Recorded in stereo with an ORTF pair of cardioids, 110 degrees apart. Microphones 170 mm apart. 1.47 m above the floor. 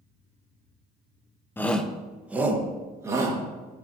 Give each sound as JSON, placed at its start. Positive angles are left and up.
{"t": 1.6, "sound": "a shout", "azimuth_deg": 10, "distance_m": 1.0}